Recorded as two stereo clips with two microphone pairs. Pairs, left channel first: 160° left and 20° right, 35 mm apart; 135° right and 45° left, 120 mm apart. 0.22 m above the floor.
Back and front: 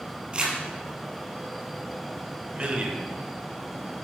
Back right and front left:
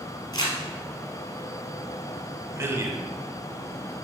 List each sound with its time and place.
0.3 s crumpling: 85° right, 2.5 m
2.5 s a man speaking: straight ahead, 1.3 m